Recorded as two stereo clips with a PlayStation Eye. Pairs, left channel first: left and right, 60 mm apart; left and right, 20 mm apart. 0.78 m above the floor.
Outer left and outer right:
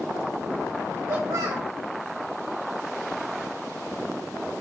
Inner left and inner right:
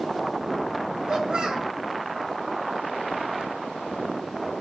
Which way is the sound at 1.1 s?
85° right.